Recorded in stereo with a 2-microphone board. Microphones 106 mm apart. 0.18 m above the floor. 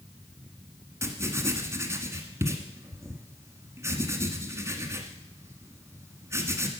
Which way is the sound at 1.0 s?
25° right (ahead or behind).